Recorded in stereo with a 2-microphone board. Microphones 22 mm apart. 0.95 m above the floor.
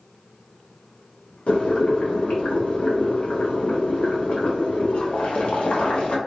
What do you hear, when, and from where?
1.5 s boiling: 60° left (ahead or behind), 0.8 m